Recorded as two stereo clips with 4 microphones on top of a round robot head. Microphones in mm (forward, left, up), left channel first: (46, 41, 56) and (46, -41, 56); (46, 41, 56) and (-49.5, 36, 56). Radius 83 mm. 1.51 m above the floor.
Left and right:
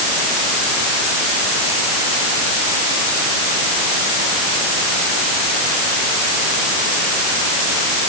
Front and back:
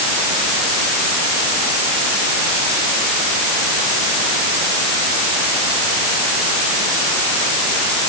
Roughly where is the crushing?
I don't hear crushing.